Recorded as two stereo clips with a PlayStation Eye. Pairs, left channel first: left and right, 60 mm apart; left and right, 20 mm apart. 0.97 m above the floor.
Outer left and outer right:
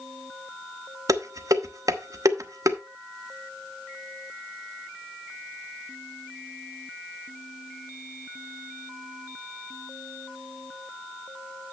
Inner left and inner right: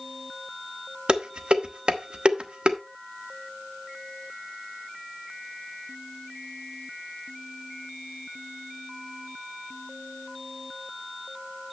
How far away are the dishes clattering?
About 0.9 m.